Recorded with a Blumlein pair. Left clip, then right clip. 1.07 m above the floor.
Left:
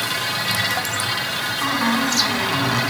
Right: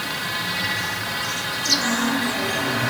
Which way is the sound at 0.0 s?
70° left.